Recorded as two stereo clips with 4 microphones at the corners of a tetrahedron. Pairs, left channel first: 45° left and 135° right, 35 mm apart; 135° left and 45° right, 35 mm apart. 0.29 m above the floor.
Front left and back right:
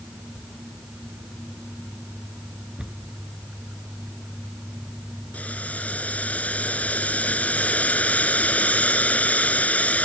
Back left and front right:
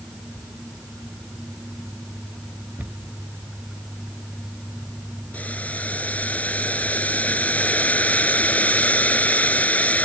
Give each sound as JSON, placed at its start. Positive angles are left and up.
{"t": 2.8, "sound": "a cupboard door", "azimuth_deg": -70}
{"t": 5.3, "sound": "boiling", "azimuth_deg": 90}